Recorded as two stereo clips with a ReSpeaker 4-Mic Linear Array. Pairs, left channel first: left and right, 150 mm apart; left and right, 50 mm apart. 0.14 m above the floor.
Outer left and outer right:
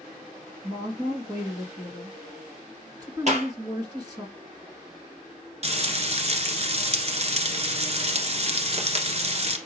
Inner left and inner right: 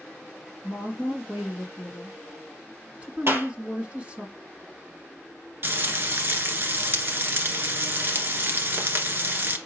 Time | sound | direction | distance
0.6 | a woman speaking | 25° right (ahead or behind) | 1.7 m
3.3 | a clap | 50° right (ahead or behind) | 3 m
5.6 | frying | 45° right (ahead or behind) | 1.4 m